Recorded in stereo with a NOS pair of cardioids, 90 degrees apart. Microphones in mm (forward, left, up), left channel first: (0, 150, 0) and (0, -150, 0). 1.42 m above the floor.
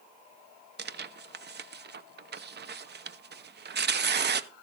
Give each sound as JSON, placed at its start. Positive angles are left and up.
{"t": 0.8, "sound": "tearing paper", "azimuth_deg": -35, "distance_m": 0.7}